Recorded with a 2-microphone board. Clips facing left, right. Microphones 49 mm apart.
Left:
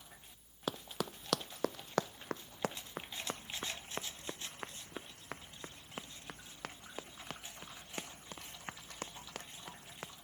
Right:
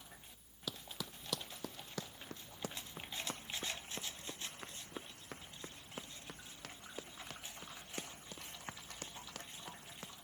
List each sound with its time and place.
0.7 s running footsteps: 50° left (ahead or behind); by 10.1 s 30° left (ahead or behind)